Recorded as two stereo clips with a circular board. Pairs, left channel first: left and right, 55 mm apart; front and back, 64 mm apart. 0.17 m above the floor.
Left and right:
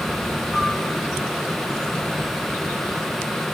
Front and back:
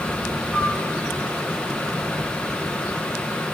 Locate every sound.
0.5 s a flute: 115° left, 3 m